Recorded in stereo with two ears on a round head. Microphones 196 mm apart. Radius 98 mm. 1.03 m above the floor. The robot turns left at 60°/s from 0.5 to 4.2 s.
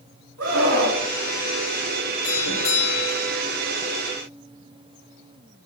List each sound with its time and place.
0.4 s a scream: 75° right, 7.5 m; by 1.0 s 110° right, 7.5 m
2.2 s a doorbell: 95° left, 5.5 m; by 3.4 s 25° left, 5.5 m